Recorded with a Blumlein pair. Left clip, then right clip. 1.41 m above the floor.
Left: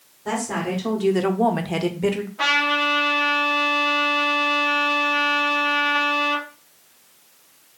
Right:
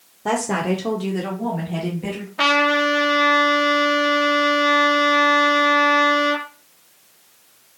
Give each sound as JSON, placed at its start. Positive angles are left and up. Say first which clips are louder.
{"t": 0.2, "sound": "a woman speaking", "louder": "right 4 dB", "azimuth_deg": -35, "distance_m": 1.0}
{"t": 2.4, "sound": "a trumpet", "louder": "right 3 dB", "azimuth_deg": -65, "distance_m": 1.2}